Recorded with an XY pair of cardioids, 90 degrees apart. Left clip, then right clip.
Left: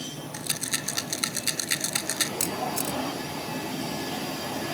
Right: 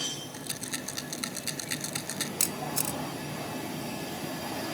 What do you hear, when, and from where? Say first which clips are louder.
0.3 s a rattle: left 6 dB; 50° left
2.4 s a camera shutter: left 3 dB; 15° right